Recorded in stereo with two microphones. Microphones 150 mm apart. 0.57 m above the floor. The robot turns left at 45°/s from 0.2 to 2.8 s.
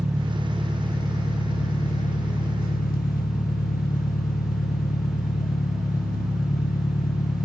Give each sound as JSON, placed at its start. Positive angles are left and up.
{"t": 0.0, "sound": "an engine running", "azimuth_deg": -160, "distance_m": 0.8}